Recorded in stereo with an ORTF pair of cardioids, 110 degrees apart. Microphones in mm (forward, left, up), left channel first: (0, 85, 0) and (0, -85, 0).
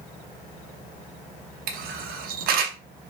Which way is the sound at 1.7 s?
65° right.